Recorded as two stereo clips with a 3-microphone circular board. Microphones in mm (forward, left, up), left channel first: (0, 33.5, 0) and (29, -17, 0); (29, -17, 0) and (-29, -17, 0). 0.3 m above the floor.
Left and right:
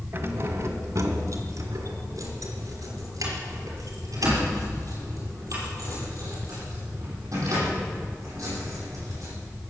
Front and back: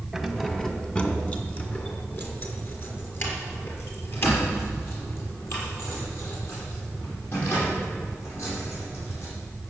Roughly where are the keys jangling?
Right.